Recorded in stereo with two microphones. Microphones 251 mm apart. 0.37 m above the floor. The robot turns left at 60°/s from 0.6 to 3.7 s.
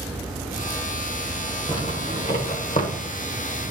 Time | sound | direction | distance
1.7 | a zipper | 20° left (ahead or behind) | 1.2 m